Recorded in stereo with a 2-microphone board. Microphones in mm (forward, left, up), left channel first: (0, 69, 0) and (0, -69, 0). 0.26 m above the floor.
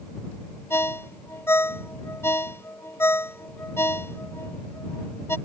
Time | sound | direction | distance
0.7 | a ringtone | 20° left (ahead or behind) | ?